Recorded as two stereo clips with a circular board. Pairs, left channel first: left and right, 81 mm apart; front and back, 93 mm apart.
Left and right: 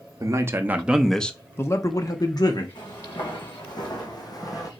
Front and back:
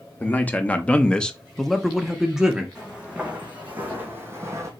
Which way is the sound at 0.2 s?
65° right.